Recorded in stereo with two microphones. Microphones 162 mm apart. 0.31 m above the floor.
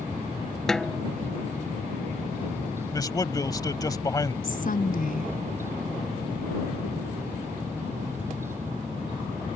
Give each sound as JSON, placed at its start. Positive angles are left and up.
{"t": 0.7, "sound": "a snare drum", "side_deg": 5}
{"t": 2.9, "sound": "a man speaking", "side_deg": 25}
{"t": 4.4, "sound": "a woman speaking", "side_deg": 55}